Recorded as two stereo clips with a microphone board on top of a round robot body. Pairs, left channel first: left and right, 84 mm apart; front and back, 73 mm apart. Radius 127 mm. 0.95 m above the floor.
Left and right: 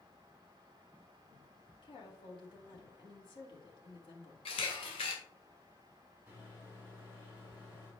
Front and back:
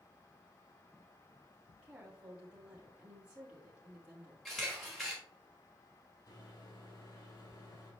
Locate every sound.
1.8 s a woman speaking: 105° left, 2 m
4.5 s a camera shutter: 90° left, 1.1 m
6.3 s a microwave: 20° right, 3.5 m